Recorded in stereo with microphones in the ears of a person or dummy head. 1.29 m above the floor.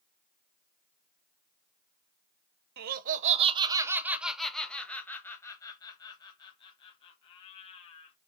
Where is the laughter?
50° right (ahead or behind), 0.8 m; by 8.2 s 35° left (ahead or behind), 2.5 m.